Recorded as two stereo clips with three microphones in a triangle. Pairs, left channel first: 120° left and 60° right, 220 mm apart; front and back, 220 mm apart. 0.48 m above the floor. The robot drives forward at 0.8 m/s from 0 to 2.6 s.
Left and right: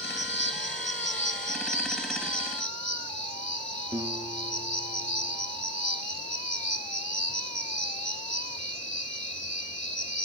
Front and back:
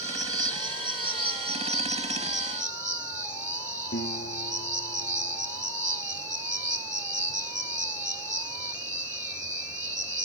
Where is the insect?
105° left, 4 m; by 10.3 s 130° left, 5 m.